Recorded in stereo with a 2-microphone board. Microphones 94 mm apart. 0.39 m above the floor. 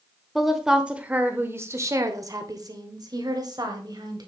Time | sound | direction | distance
0.3 | a woman speaking | centre (ahead or behind) | 1.0 m